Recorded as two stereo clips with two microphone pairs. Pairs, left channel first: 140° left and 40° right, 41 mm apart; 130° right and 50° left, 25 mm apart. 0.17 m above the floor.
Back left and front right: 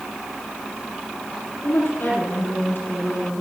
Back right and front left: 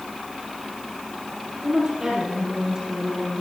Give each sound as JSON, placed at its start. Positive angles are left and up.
{"t": 1.6, "sound": "a woman speaking", "azimuth_deg": 115, "distance_m": 5.5}